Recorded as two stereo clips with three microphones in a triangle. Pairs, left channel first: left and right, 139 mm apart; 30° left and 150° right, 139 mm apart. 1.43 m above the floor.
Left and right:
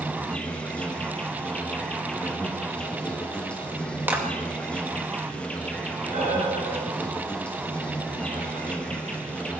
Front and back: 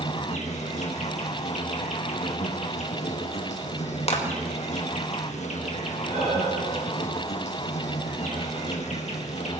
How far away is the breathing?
About 9 m.